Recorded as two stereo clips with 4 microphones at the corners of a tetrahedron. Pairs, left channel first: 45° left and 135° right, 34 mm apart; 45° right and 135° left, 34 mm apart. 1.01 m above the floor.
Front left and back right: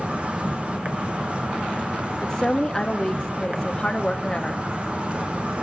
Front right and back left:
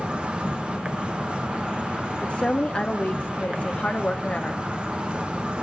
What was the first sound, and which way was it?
An insect, 175° right.